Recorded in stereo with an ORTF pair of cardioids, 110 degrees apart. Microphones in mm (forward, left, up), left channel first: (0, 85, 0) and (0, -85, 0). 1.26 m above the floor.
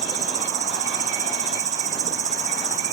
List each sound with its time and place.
0.0 s an insect: 50° right